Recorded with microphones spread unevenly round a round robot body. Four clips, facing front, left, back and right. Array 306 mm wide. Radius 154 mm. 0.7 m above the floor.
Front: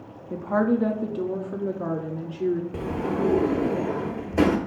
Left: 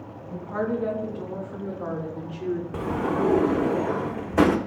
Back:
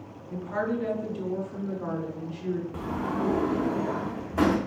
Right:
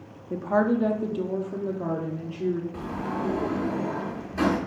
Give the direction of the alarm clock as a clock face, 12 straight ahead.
I don't hear an alarm clock.